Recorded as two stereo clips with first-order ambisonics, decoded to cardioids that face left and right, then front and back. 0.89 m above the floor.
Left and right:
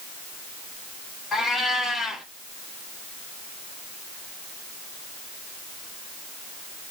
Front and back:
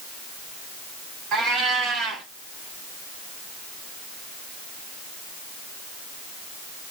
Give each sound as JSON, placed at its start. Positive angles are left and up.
{"t": 1.3, "sound": "a cat meowing", "azimuth_deg": 150, "distance_m": 1.2}